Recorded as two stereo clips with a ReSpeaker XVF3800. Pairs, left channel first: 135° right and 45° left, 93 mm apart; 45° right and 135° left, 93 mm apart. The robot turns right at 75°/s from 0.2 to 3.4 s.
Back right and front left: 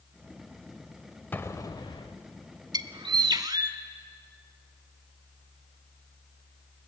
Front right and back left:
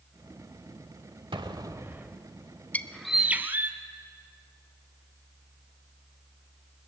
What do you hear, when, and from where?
1.3 s an explosion: 155° left, 1.0 m; by 2.2 s 140° right, 1.0 m
2.7 s a bird: 25° left, 0.9 m; by 3.8 s 75° left, 0.9 m